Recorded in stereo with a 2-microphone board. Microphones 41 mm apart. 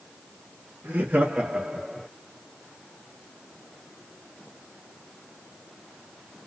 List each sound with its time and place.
0.8 s laughter: 45° right (ahead or behind), 0.9 m; by 2.1 s 5° left (ahead or behind), 0.8 m